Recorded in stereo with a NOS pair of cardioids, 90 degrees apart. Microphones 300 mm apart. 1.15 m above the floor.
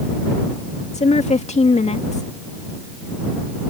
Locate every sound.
0.9 s a woman speaking: 20° left